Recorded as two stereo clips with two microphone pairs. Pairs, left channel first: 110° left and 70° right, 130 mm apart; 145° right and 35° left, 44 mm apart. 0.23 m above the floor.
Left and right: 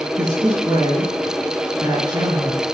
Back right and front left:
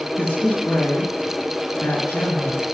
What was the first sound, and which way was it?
A woman speaking, 130° right.